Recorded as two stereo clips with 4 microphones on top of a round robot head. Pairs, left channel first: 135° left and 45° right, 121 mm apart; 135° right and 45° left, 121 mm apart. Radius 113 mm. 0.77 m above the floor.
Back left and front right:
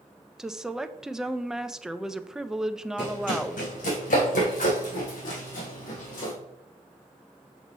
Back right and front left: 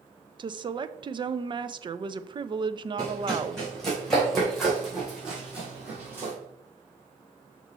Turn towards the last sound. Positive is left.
turn(degrees=115)